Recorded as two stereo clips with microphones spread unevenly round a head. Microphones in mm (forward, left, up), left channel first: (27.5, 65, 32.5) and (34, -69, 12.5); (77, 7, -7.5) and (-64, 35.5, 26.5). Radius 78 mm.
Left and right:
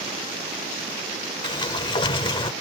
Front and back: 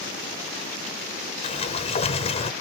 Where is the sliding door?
40° left.